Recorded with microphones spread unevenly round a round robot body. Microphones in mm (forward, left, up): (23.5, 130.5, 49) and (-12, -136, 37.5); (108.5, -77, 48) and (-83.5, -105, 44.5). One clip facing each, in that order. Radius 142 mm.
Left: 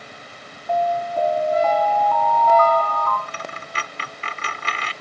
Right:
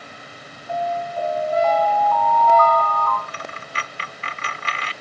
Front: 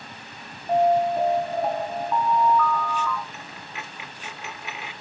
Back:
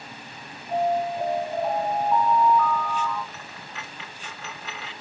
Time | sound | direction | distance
0.7 | an alarm | 70° left | 8 m
3.3 | a dropped coin | 90° left | 1.0 m